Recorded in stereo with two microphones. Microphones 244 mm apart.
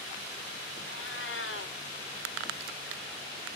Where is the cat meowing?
55° left (ahead or behind), 1.4 m.